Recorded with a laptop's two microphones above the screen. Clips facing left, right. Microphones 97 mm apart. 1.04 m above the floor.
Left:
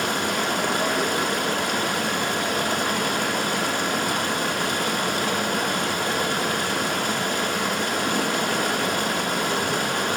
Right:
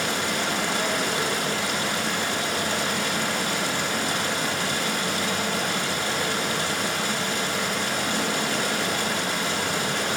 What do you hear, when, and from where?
0.0 s running water: 50° left (ahead or behind), 0.7 m